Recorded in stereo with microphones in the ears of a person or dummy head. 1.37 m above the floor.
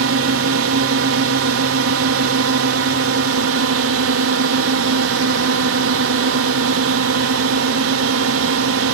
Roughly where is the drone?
Right.